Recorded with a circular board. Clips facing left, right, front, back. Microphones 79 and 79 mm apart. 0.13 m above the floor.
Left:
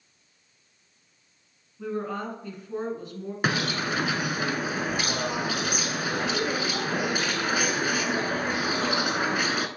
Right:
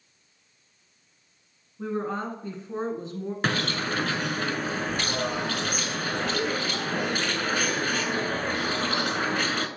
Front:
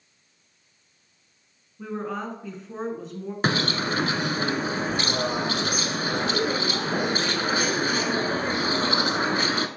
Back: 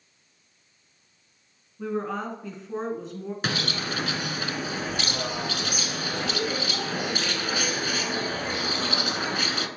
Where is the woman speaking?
90° right, 1.3 m.